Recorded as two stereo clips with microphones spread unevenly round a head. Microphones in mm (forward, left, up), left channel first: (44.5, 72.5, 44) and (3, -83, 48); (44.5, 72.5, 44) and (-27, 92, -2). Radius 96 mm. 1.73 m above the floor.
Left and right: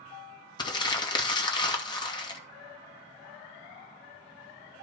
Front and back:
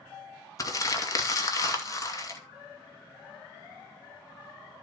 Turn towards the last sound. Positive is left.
turn(degrees=10)